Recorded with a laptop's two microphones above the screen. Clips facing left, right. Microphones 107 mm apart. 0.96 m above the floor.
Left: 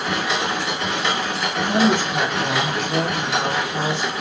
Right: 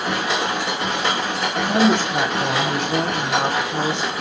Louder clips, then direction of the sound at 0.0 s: Right 1 dB; 50° right (ahead or behind).